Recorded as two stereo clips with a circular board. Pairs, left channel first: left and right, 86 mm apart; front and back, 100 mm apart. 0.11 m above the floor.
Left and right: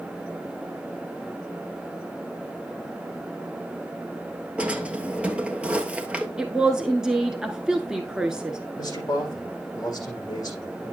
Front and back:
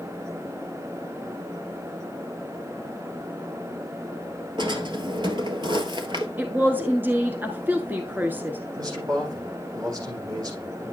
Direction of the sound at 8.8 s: 135° left.